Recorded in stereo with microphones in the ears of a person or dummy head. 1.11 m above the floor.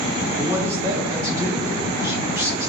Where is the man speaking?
20° right (ahead or behind), 1.1 m.